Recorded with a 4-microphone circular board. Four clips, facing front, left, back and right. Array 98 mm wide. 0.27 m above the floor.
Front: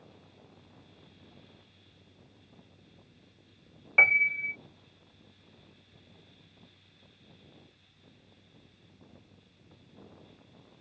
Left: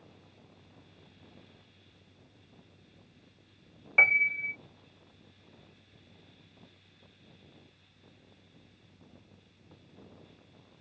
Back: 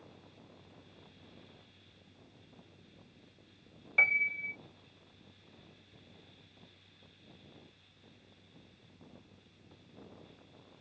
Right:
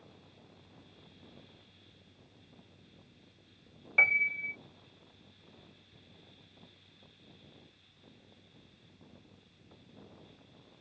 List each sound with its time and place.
4.0 s a piano: 25° left